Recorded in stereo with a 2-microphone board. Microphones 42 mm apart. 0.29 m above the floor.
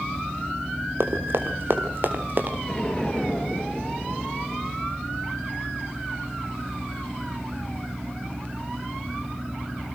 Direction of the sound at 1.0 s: 70° right (ahead or behind).